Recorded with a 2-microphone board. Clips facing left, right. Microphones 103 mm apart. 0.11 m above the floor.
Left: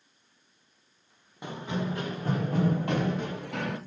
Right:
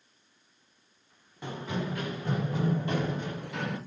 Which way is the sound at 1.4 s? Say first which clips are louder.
Left 1 dB; 15° left (ahead or behind).